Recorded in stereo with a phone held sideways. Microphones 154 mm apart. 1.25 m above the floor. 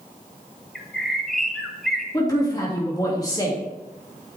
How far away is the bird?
About 1.1 m.